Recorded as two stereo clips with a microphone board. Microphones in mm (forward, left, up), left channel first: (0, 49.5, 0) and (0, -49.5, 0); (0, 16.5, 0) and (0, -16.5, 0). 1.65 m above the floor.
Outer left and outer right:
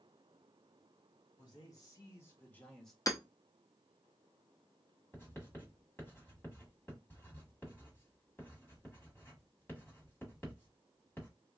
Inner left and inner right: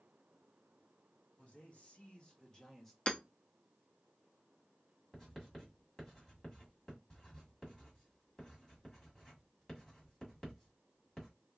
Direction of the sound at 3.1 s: 35° left (ahead or behind).